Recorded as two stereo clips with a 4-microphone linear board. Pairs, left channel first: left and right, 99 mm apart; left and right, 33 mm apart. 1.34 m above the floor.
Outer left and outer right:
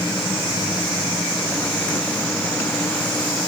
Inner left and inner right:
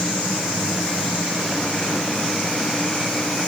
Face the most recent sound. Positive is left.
No sound to turn to.